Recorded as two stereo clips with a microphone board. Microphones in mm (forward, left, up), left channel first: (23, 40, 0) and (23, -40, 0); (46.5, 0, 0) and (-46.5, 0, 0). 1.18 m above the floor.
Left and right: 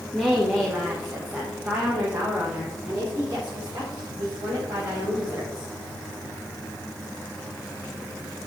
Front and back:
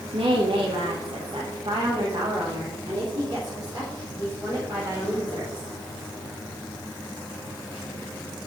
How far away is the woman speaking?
About 1.7 m.